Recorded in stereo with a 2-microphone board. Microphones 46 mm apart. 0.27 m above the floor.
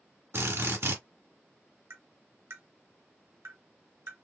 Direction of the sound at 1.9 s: 65° right (ahead or behind).